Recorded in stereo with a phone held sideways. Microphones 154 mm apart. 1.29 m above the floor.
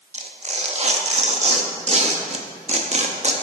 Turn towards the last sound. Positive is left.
turn(degrees=-45)  # may be behind; listen again after turning